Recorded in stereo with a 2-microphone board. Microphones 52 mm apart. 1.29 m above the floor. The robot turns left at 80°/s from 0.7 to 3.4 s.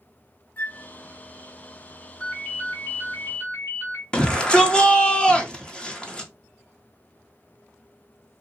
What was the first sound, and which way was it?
A flute, 25° left (ahead or behind).